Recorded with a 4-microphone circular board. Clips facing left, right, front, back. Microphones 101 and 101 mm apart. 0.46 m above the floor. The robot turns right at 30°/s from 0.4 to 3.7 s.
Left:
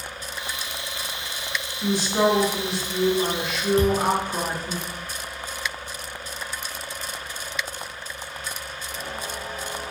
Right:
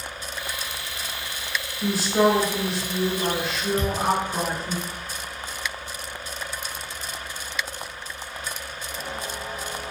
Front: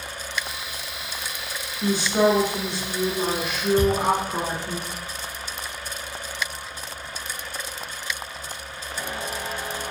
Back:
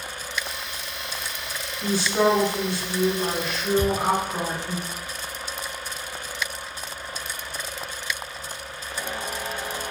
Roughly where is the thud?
Ahead left.